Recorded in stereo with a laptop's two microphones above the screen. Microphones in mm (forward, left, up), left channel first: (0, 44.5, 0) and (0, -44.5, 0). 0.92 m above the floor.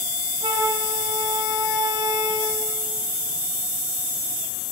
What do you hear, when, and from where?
0.4 s a flute: 90° right, 9 m